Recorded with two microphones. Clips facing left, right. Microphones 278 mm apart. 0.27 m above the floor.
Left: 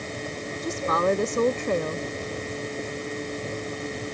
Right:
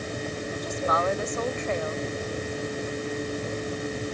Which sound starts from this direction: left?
A woman speaking, at 0.6 s.